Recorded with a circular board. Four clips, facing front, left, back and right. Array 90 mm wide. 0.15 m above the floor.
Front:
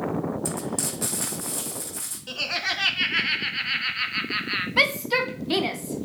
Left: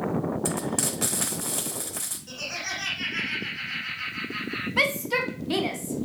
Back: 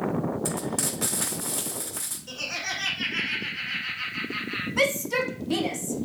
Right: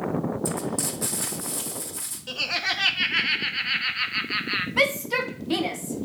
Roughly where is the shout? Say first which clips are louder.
Right 2 dB, even; ahead.